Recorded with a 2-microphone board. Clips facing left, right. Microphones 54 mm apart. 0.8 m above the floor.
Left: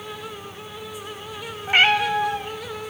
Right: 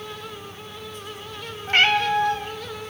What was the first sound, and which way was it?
A cat meowing, 10° left (ahead or behind).